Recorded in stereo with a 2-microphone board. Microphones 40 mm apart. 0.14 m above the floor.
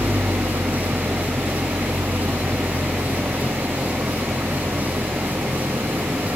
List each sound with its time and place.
0.0 s an engine running: 70° right (ahead or behind)